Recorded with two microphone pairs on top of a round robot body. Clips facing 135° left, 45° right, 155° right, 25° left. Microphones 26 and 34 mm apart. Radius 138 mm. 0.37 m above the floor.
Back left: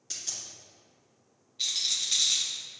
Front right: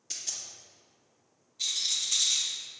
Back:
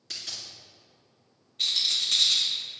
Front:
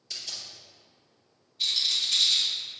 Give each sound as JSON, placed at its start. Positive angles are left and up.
{"t": 0.1, "sound": "a dropped coin", "azimuth_deg": -145, "distance_m": 2.5}
{"t": 1.6, "sound": "a rattle", "azimuth_deg": -165, "distance_m": 2.0}